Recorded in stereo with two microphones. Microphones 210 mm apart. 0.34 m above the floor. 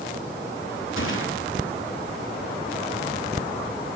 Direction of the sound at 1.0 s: 70° left (ahead or behind).